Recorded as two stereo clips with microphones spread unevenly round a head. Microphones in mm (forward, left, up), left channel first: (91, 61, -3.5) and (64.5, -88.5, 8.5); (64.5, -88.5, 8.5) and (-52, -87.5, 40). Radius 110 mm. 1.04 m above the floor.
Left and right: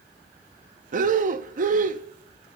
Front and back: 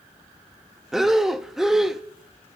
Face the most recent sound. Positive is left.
turn(degrees=-105)